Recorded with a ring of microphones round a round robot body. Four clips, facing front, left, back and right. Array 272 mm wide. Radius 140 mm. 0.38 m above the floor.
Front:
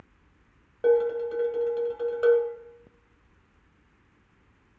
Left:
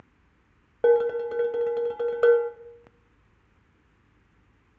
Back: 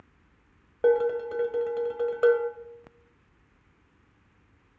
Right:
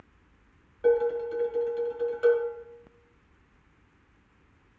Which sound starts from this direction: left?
Dishes clattering, at 0.8 s.